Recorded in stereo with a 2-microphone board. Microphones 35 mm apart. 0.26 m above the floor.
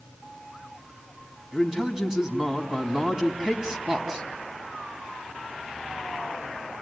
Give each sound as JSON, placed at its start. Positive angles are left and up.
{"t": 1.5, "sound": "a man speaking", "side_deg": -15, "distance_m": 2.5}